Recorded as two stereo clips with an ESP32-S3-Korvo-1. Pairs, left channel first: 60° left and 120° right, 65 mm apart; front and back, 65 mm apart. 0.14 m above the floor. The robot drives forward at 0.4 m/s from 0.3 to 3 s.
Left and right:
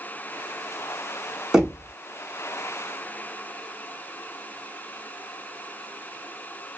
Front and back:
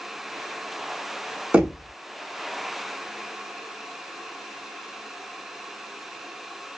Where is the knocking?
175° left, 0.8 m; by 1.9 s straight behind, 0.8 m.